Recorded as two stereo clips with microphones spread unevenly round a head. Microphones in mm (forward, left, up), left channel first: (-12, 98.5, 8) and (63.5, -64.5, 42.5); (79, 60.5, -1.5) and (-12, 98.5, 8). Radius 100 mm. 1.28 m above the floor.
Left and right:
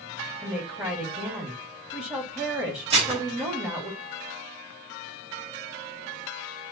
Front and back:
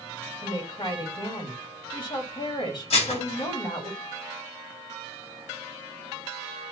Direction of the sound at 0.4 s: 5° left.